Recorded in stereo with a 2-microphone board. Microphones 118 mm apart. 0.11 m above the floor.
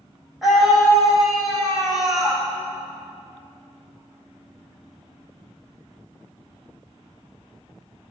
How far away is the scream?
About 4.5 m.